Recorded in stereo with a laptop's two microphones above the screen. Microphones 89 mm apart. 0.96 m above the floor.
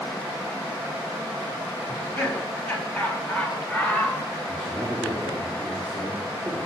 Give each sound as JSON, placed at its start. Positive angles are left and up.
{"t": 1.9, "sound": "laughter", "side_deg": 15, "distance_m": 8.0}
{"t": 4.5, "sound": "a man speaking", "side_deg": 10, "distance_m": 3.5}